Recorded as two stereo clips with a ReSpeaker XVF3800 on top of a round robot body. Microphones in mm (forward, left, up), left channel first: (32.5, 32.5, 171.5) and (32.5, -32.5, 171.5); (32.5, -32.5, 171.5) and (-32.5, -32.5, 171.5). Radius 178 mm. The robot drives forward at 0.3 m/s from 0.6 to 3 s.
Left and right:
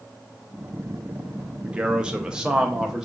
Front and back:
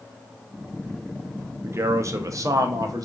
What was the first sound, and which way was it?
A man speaking, 155° right.